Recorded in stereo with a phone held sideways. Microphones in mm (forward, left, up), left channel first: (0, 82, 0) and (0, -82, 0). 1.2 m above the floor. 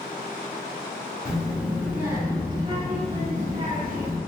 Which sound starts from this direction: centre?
A child speaking, at 1.2 s.